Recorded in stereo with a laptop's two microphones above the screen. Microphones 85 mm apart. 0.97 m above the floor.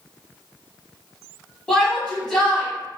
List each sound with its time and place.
1.7 s a shout: 10° left (ahead or behind), 1.7 m